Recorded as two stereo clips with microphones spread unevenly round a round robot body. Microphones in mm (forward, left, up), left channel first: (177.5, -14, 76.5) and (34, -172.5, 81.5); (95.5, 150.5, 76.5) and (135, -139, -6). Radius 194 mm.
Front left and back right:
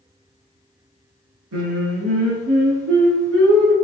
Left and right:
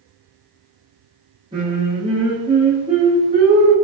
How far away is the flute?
No flute in this recording.